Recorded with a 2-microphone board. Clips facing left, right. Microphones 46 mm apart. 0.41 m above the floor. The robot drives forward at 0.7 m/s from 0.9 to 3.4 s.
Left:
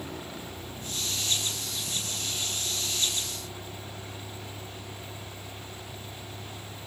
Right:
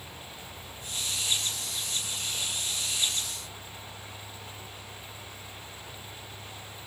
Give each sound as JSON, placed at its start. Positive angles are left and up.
{"t": 0.0, "sound": "a vehicle", "side_deg": 80}